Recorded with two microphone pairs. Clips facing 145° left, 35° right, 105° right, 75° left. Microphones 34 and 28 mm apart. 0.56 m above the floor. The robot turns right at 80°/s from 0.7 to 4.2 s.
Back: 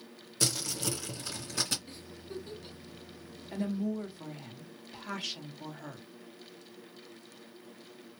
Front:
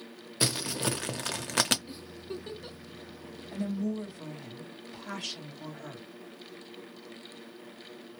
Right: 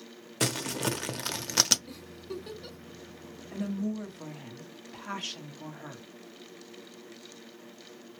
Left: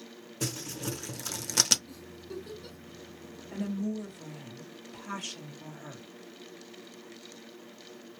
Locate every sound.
0.4 s crumpling: 100° right, 0.6 m; by 1.8 s 15° right, 0.6 m
1.9 s a giggle: 105° right, 1.0 m; by 2.8 s 35° right, 1.0 m
3.5 s a woman speaking: 160° left, 1.0 m; by 6.0 s 145° right, 1.0 m